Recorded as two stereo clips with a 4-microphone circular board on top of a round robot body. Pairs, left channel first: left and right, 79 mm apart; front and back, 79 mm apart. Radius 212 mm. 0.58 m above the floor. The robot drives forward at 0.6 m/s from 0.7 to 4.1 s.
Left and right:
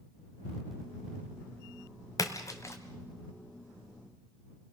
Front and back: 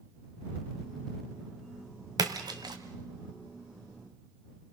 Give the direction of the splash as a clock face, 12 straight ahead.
7 o'clock.